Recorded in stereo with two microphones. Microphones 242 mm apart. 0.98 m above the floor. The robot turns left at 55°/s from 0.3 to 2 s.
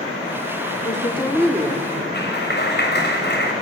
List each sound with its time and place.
0.8 s a woman speaking: 40° left, 2 m; by 2.0 s 25° right, 2 m
2.1 s a clap: 45° left (ahead or behind), 5 m